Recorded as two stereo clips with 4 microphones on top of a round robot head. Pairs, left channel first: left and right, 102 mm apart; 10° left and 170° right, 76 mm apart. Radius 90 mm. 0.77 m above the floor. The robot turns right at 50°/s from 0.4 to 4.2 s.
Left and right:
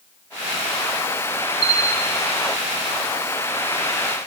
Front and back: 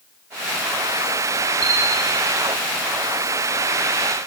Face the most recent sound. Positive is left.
turn(degrees=5)